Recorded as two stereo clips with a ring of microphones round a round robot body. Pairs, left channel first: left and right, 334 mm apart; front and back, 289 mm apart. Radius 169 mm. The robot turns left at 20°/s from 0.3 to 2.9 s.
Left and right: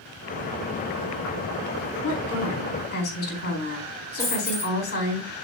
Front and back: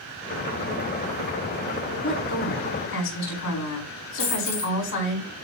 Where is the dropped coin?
5° left, 4.5 m.